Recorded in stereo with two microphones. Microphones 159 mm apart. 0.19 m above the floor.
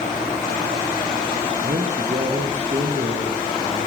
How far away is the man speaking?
About 5.5 m.